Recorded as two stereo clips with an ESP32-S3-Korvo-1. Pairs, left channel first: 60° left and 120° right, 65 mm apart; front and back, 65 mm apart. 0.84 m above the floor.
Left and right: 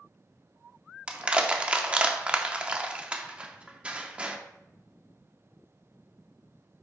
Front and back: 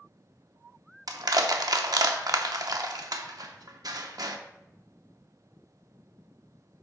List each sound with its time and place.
1.1 s crushing: 165° left, 0.7 m